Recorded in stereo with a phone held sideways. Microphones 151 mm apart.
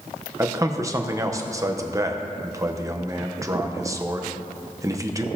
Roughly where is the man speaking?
Right.